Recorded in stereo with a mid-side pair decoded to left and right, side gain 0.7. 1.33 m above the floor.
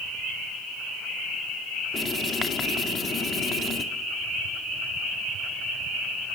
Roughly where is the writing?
Ahead left.